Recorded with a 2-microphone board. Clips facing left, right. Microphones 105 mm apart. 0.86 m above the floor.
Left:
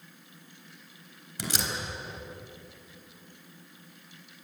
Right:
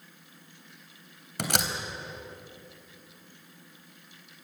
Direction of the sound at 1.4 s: 70° right (ahead or behind).